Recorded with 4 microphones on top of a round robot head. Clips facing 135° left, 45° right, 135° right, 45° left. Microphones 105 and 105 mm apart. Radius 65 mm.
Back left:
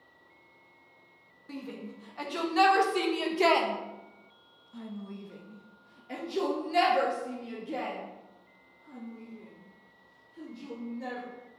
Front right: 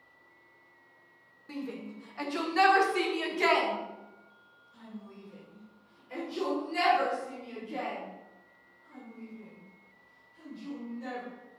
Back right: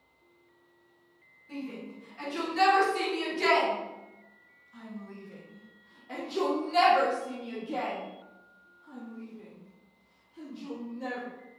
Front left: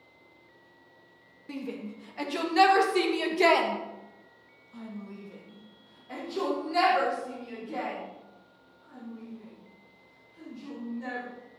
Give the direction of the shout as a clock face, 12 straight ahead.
10 o'clock.